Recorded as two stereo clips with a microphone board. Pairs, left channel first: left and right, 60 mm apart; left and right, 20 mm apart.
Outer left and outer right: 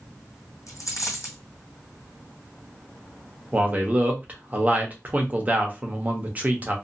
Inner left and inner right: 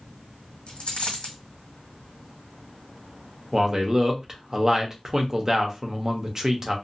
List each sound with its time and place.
0.7 s a dropped coin: 65° left (ahead or behind), 1.7 m
3.5 s a man speaking: 30° right (ahead or behind), 0.8 m